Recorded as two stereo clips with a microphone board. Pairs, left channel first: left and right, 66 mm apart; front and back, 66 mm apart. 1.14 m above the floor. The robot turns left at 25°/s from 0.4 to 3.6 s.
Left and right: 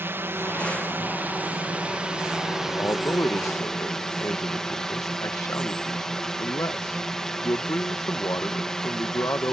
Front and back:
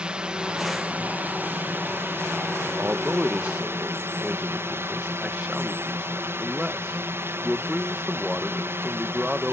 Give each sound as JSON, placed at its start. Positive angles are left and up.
{"t": 0.0, "sound": "a drone", "azimuth_deg": -110}
{"t": 2.8, "sound": "a man speaking", "azimuth_deg": 125}